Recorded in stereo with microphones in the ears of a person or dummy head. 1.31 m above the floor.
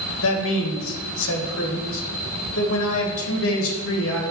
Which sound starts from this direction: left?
A man speaking, at 0.2 s.